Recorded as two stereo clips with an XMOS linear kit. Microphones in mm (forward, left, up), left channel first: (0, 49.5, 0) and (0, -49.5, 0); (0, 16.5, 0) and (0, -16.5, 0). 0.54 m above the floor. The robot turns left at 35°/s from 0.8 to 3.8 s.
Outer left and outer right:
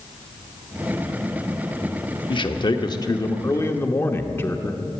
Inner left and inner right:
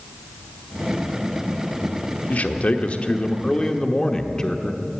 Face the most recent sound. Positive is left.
turn(degrees=30)